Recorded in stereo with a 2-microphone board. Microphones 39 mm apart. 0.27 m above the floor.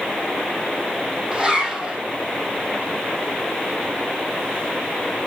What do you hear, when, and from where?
1.3 s a zipper: 10° right (ahead or behind), 4.5 m